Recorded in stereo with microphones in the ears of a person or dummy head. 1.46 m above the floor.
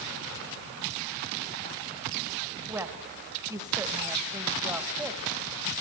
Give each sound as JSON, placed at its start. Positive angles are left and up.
{"t": 2.7, "sound": "a woman speaking", "side_deg": -15, "distance_m": 1.8}